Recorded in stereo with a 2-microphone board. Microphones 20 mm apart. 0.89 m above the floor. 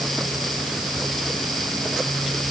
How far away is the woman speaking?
No woman speaking in this recording.